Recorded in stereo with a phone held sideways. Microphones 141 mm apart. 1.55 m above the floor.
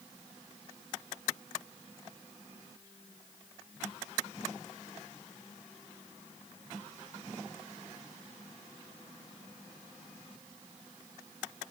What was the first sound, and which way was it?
Only background noise.